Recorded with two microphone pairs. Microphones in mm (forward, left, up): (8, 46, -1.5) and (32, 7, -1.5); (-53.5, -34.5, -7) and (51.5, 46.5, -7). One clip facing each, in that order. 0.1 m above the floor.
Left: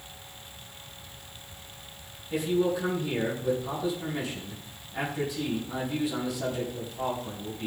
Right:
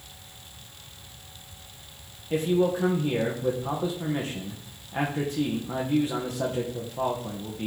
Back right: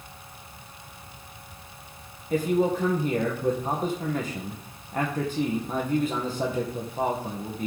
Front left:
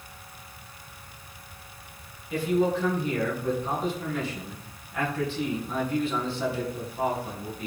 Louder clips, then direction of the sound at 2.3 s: Right 3 dB, back right 1 dB; 100° right.